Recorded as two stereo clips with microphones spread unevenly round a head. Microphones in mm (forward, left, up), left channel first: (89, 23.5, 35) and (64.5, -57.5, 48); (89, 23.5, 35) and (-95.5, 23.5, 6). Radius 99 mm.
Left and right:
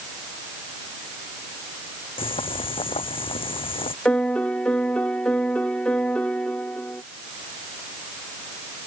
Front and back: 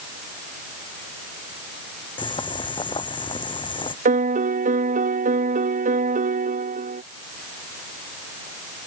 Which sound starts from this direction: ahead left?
Boiling, at 2.2 s.